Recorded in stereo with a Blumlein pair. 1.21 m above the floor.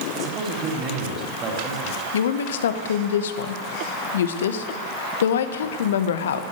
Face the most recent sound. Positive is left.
turn(degrees=60)